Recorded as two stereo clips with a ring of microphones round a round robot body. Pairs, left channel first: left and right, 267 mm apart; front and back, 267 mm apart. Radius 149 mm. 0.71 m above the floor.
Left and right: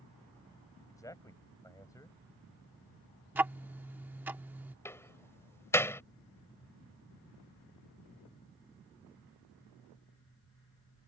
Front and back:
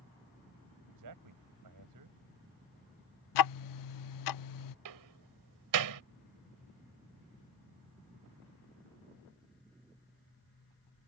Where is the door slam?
170° left.